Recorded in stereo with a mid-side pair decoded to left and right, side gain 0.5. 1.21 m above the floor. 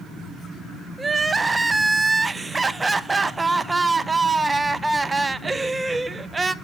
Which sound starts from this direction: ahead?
Crying, at 1.0 s.